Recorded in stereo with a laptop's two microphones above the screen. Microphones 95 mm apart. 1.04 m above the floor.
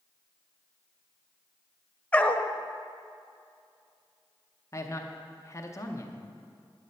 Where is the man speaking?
30° left (ahead or behind), 0.7 m.